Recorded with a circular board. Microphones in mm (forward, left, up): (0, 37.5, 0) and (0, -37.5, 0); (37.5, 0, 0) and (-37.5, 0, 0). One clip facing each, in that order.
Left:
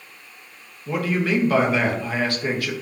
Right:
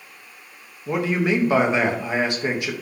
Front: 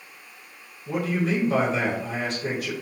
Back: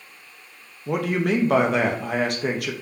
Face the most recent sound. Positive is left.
turn(degrees=-160)